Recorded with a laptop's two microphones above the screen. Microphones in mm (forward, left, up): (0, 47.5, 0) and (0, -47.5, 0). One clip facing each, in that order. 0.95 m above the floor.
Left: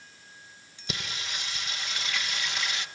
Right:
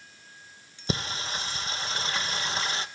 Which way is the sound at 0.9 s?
35° right (ahead or behind).